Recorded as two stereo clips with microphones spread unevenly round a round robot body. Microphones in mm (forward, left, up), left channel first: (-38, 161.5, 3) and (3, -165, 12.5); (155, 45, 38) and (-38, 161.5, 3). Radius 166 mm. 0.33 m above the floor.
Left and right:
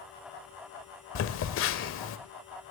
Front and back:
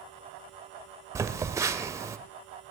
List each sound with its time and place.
1.1 s a phone buzzing: 90° left, 1.0 m